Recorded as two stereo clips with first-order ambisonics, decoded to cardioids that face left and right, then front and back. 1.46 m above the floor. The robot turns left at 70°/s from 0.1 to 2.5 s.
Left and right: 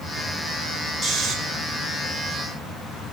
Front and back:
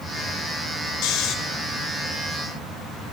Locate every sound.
1.0 s snoring: 20° right, 1.4 m; by 1.4 s 40° right, 1.4 m